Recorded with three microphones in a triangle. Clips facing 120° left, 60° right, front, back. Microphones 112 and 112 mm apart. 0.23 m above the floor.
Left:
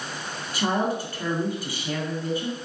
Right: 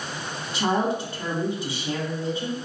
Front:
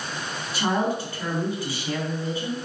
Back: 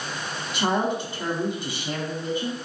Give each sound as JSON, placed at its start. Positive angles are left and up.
{"t": 0.5, "sound": "a woman speaking", "azimuth_deg": -120, "distance_m": 1.5}